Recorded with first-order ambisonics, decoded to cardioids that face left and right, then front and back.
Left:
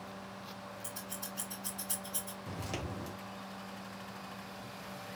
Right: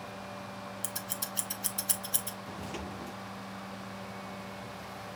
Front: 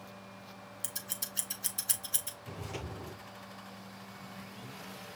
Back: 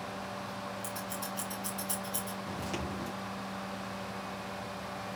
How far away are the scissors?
About 0.9 m.